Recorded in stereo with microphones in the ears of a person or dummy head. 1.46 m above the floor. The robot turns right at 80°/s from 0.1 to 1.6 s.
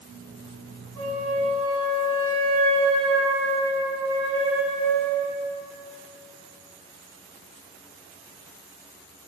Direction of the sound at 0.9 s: 75° right.